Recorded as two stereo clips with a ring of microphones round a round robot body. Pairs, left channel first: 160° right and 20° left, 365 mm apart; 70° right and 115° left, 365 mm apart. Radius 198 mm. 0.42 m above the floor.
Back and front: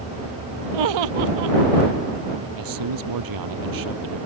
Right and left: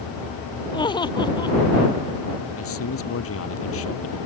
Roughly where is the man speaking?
Ahead.